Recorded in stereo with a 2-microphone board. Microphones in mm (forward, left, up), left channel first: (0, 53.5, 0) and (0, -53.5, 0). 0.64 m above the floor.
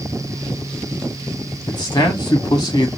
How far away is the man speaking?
About 1.7 m.